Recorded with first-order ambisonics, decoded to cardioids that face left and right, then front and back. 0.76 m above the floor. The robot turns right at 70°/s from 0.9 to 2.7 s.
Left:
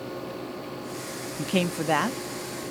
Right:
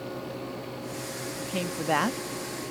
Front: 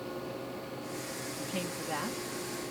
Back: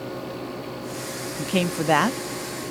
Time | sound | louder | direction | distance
1.4 | a man speaking | left 6 dB, back 15 dB | 140° left | ?